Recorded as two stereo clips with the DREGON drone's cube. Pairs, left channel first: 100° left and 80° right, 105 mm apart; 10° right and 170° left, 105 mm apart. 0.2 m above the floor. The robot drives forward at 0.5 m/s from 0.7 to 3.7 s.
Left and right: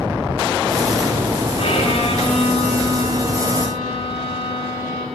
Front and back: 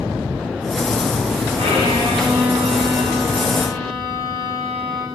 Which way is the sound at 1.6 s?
130° left.